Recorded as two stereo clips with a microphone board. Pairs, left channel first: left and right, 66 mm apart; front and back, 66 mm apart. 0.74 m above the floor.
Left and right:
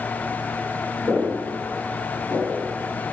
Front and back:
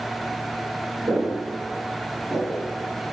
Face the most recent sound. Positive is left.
turn(degrees=-120)